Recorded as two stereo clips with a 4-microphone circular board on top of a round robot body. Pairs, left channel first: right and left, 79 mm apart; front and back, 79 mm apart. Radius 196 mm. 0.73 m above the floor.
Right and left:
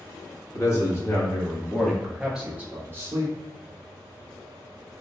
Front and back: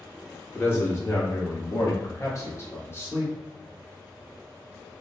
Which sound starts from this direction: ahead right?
A man speaking, at 0.5 s.